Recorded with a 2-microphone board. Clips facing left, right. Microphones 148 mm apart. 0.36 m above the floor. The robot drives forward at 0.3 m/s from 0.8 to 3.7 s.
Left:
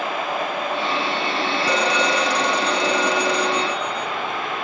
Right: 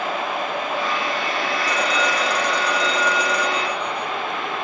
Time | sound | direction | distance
1.6 | a phone ringing | 75° left (ahead or behind) | 3 m